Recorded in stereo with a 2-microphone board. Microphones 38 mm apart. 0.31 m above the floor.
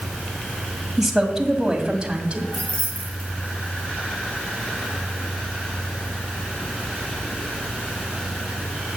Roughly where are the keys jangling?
Left.